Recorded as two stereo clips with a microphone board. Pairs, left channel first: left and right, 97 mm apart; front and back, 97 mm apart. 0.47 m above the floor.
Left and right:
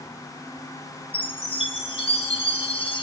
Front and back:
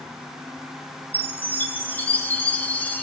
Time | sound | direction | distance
1.1 | a chime | 75° left | 2 m